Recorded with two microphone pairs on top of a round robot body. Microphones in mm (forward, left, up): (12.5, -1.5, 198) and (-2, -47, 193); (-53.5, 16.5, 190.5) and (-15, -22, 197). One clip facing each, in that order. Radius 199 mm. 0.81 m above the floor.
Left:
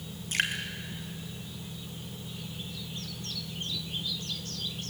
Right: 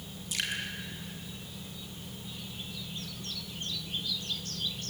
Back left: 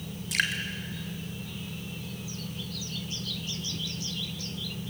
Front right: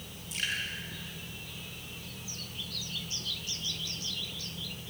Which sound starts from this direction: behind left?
Dripping, at 0.3 s.